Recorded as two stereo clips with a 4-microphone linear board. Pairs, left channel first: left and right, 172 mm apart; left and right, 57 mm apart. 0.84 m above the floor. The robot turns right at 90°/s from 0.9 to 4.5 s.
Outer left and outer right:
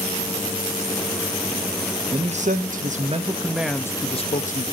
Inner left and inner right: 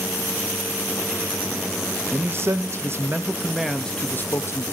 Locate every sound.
2.1 s a man speaking: 140° right, 0.8 m; by 4.6 s 75° left, 0.8 m